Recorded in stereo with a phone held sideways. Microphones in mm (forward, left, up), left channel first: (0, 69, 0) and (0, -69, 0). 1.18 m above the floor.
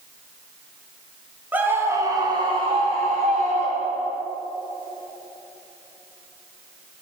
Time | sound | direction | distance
1.5 | a scream | 10° right (ahead or behind) | 1.4 m